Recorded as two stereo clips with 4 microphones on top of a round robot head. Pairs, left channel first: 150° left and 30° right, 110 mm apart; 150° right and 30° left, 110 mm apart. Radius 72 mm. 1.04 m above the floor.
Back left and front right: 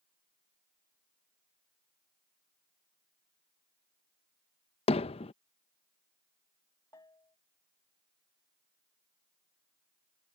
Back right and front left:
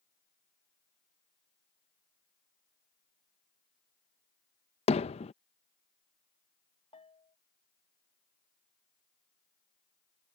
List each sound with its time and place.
4.9 s hammering: straight behind
6.9 s a bell: 160° right